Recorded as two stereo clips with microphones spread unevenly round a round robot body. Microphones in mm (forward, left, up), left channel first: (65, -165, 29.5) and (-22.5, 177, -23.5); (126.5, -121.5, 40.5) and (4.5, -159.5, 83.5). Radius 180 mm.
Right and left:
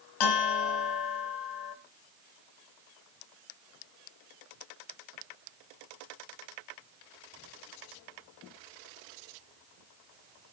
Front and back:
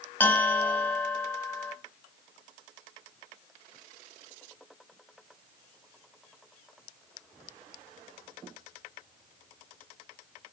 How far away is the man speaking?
No man speaking in this recording.